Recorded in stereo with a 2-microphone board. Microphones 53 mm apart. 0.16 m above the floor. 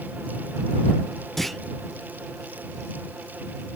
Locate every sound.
1.4 s a clunk: 5° left (ahead or behind)